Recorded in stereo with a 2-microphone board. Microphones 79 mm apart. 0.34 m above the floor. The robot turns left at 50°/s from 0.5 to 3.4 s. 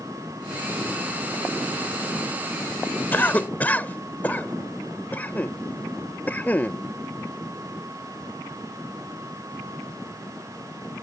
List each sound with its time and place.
3.1 s a cough: 25° left (ahead or behind); by 6.8 s 20° left (ahead or behind)